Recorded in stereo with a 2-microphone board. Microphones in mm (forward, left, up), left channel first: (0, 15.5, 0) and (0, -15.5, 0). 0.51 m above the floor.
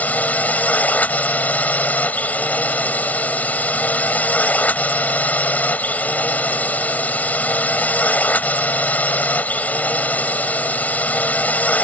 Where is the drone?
55° left (ahead or behind).